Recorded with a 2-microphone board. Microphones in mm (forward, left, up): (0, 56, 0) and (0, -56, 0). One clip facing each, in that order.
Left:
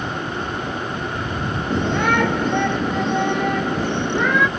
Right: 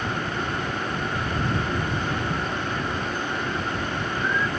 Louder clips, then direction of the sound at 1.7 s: Left 8 dB; 90° left.